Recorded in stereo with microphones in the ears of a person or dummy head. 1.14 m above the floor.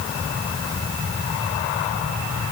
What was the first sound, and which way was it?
Only background noise.